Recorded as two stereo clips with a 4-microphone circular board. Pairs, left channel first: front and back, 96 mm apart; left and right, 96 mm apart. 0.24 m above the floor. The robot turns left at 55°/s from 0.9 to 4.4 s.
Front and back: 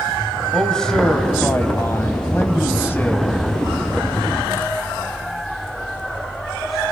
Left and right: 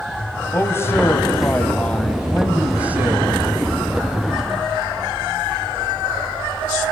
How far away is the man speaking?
About 1.7 m.